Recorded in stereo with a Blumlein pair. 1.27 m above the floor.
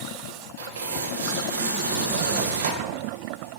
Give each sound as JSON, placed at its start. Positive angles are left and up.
{"t": 0.6, "sound": "tearing paper", "azimuth_deg": -60, "distance_m": 0.6}